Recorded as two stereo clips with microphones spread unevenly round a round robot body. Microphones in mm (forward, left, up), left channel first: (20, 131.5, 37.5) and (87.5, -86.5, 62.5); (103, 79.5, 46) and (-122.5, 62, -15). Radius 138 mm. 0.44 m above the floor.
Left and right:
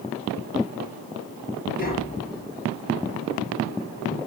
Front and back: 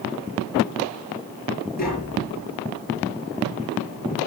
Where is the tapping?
55° left, 7 m.